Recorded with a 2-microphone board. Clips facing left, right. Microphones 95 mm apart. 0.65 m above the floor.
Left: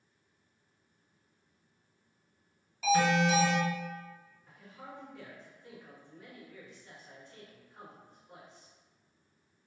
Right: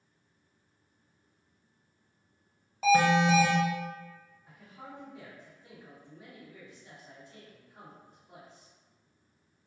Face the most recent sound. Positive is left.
turn(degrees=-10)  # may be behind; listen again after turning